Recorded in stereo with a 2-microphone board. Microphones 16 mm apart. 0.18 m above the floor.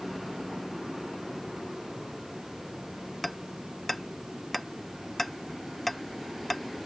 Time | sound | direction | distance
3.2 | hammering | 15° left (ahead or behind) | ?